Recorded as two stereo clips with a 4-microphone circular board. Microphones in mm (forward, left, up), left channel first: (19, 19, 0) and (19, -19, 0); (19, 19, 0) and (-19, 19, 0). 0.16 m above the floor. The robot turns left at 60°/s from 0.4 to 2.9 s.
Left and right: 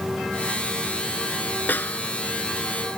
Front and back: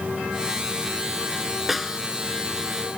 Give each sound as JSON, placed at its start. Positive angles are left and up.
{"t": 1.7, "sound": "a snare drum", "azimuth_deg": 100}